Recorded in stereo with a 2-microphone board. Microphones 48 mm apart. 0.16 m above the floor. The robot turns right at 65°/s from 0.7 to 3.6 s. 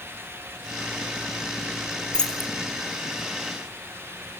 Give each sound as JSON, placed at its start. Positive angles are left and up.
{"t": 2.1, "sound": "keys jangling", "side_deg": 20, "distance_m": 1.4}